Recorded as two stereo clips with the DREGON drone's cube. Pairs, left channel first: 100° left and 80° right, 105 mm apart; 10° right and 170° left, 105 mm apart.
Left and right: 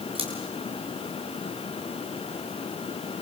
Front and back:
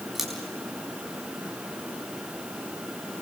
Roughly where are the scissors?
Right.